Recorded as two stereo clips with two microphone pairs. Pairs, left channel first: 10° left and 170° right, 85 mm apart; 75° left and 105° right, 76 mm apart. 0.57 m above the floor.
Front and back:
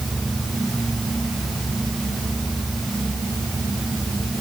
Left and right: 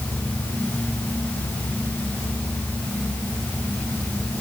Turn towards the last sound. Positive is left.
No sound to turn to.